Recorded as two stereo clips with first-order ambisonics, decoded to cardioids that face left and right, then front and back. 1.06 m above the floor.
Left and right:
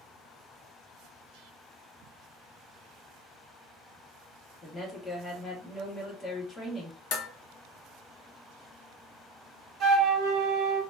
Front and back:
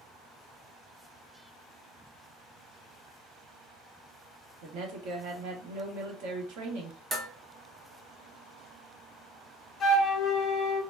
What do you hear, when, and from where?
4.6 s a woman speaking: 165° left, 1.1 m
7.1 s dishes clattering: 105° left, 0.8 m
9.8 s a flute: 65° right, 0.9 m